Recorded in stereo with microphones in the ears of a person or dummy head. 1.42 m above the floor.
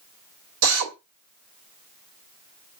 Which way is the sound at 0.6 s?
75° right (ahead or behind).